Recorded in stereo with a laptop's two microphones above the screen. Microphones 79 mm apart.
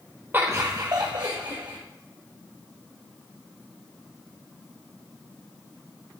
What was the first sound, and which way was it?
Laughter, 25° right (ahead or behind).